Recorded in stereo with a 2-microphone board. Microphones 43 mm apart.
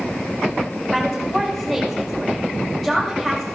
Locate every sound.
0.9 s a woman speaking: 5° left (ahead or behind), 4.5 m